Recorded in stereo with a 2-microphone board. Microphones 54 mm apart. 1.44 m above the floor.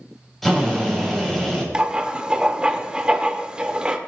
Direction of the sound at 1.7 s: 15° right (ahead or behind).